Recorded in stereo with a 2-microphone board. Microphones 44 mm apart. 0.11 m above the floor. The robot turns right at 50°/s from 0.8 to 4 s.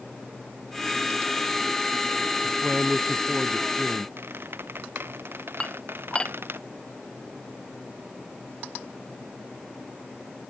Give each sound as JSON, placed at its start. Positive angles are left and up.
{"t": 2.4, "sound": "a man speaking", "azimuth_deg": -45}
{"t": 4.2, "sound": "a squeak", "side_deg": -60}
{"t": 5.6, "sound": "dishes clattering", "side_deg": 25}